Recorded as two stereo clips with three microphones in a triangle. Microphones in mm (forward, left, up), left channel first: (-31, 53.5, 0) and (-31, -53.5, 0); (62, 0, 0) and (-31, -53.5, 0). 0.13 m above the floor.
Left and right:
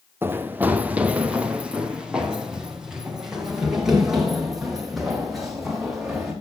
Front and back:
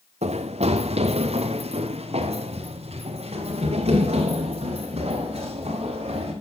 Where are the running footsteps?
160° right, 1.6 m; by 6.3 s 175° right, 8 m.